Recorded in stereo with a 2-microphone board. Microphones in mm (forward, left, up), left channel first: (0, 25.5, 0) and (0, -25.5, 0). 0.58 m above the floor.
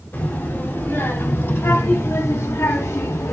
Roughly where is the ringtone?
I don't hear a ringtone.